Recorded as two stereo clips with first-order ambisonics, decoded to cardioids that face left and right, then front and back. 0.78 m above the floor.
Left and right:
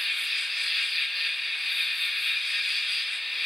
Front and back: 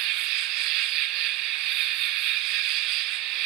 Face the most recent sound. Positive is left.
turn(degrees=180)